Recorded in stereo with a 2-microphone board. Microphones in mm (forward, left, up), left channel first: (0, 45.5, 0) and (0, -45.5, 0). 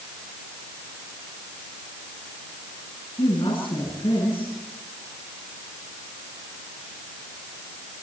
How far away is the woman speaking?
About 10 m.